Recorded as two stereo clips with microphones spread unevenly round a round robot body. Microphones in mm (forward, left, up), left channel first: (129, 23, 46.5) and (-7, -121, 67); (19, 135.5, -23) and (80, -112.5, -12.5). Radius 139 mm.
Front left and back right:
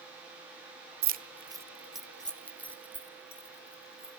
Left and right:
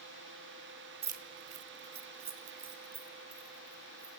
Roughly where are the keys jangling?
Behind right.